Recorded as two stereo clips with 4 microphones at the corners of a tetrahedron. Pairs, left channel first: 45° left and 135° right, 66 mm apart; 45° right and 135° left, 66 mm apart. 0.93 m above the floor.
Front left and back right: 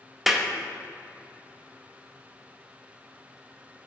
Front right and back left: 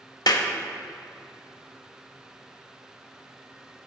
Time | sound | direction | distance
0.3 | a clap | 50° right | 0.8 m